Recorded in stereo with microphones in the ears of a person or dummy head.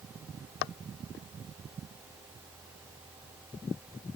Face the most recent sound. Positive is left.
No sound to turn to.